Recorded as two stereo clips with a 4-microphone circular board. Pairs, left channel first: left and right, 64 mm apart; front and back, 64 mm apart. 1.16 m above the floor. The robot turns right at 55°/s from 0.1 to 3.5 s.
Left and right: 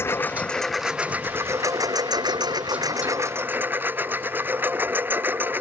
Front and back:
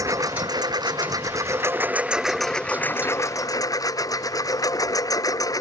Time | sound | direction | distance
0.0 | a lawn mower | 145° left | ?